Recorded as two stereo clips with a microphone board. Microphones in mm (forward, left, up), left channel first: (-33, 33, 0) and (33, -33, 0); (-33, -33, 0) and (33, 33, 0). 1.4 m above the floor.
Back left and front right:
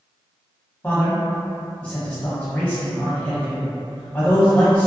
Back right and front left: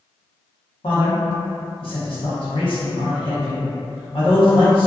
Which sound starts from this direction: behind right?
A man speaking, at 0.8 s.